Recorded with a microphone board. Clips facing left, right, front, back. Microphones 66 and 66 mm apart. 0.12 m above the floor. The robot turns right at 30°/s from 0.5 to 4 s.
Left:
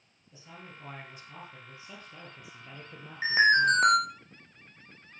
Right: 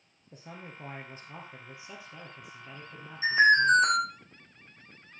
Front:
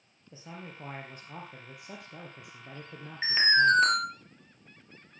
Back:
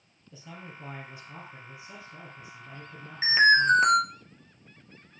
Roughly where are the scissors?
I don't hear scissors.